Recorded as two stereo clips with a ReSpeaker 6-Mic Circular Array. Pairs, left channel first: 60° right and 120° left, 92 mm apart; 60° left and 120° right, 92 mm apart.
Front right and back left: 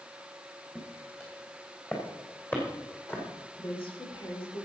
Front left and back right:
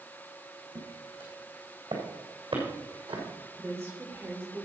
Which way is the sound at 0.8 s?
130° right.